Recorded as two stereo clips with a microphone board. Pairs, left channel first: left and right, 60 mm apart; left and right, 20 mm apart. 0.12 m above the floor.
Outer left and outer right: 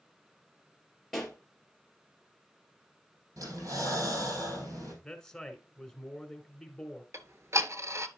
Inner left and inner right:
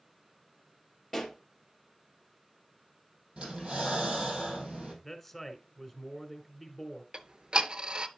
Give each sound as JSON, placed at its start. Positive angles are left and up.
{"t": 1.1, "sound": "a pop", "side_deg": 5, "distance_m": 2.5}
{"t": 3.4, "sound": "breathing", "side_deg": -65, "distance_m": 4.5}
{"t": 5.0, "sound": "a man speaking", "side_deg": 10, "distance_m": 1.3}
{"t": 7.1, "sound": "ticking", "side_deg": -55, "distance_m": 0.6}